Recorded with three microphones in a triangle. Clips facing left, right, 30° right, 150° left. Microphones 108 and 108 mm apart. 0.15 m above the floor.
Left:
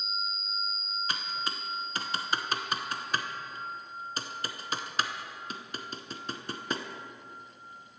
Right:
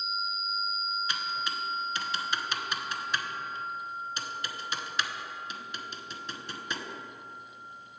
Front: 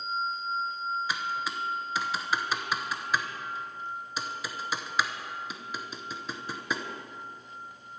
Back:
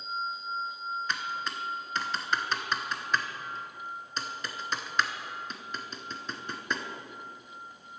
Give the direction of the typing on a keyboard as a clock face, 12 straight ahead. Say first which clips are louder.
Right 2 dB, front 2 dB; 10 o'clock.